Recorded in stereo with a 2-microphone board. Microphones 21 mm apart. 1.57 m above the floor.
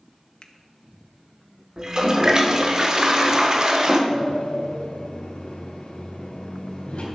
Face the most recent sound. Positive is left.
turn(degrees=65)  # may be behind; listen again after turning